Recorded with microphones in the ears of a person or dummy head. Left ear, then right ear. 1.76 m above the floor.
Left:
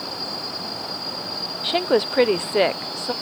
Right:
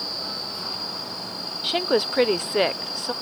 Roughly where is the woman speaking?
Centre.